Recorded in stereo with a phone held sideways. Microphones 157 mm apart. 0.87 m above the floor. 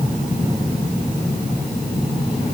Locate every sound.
Only background noise.